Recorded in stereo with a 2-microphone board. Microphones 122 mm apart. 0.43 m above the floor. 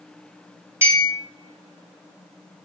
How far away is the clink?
About 2 m.